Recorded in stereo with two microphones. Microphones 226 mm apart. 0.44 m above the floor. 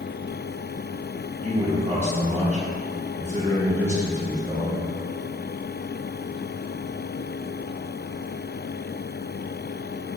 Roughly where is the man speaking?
Right.